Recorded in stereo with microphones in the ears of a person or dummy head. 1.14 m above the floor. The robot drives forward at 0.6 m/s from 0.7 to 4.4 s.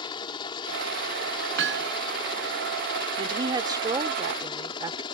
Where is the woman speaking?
25° right (ahead or behind); by 5.0 s 20° right (ahead or behind).